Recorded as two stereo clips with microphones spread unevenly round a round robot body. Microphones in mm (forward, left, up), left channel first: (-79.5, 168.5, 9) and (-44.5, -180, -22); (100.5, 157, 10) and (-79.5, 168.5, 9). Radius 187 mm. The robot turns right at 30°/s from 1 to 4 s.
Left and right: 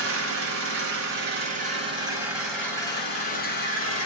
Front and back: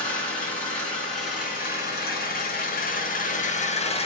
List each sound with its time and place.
0.0 s an engine running: 45° right, 0.8 m; by 4.1 s 45° left, 0.8 m